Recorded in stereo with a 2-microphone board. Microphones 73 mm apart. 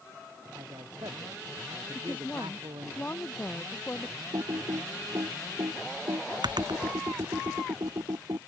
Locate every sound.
0.6 s a man speaking: 85° right
1.9 s a woman speaking: 25° left (ahead or behind)
4.3 s typing on a keyboard: 80° right